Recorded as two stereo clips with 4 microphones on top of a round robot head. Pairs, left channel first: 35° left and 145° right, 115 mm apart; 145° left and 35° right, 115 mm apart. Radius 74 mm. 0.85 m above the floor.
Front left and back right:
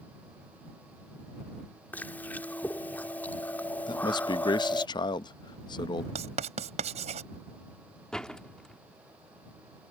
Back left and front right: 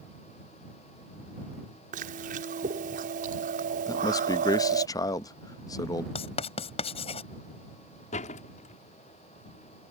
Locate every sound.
1.9 s chewing: 40° right
3.9 s a man speaking: 85° left
6.2 s writing: 175° right
8.1 s a door slam: 120° left